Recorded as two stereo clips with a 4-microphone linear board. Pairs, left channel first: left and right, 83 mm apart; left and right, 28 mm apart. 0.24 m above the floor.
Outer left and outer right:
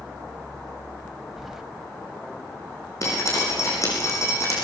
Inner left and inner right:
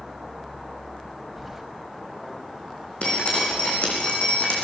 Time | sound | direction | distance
1.4 | keys jangling | 5° right (ahead or behind) | 0.6 m
3.0 | dripping | 45° left (ahead or behind) | 6 m